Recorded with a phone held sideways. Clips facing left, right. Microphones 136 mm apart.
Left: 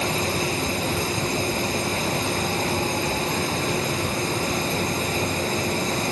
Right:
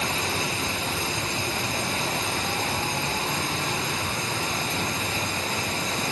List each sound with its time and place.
0.0 s a fan: 40° left (ahead or behind)